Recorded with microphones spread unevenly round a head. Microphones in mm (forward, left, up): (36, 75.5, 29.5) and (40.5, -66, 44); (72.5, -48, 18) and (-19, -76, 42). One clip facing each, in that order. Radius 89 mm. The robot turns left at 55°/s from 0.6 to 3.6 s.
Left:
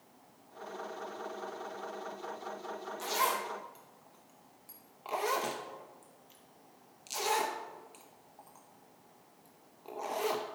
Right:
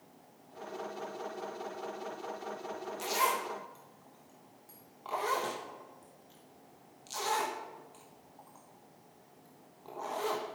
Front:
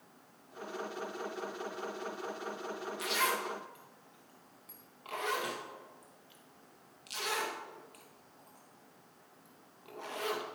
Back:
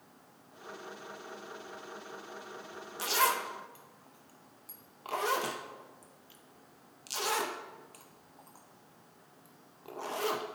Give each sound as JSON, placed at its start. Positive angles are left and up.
{"t": 3.0, "sound": "a zipper", "azimuth_deg": -155, "distance_m": 0.8}